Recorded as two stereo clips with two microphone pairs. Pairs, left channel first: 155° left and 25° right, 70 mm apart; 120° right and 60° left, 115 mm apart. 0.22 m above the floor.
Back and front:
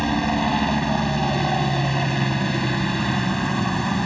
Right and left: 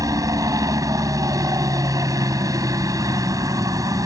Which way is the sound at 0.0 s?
70° left.